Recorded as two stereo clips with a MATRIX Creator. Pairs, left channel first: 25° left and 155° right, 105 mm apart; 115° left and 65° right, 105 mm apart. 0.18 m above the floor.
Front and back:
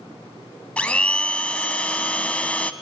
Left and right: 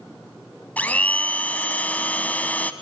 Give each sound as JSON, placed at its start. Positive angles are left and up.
{"t": 0.8, "sound": "a blender", "azimuth_deg": 75, "distance_m": 0.6}